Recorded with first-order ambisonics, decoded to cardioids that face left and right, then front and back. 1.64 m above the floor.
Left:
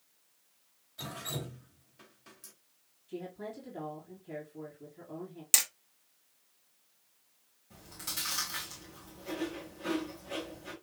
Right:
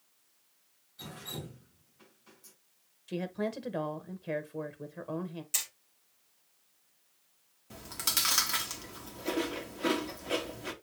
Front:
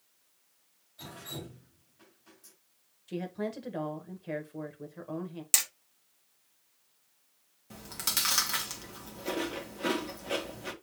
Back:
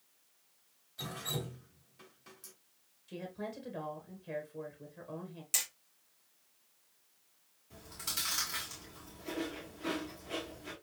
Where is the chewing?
40° right, 1.4 m.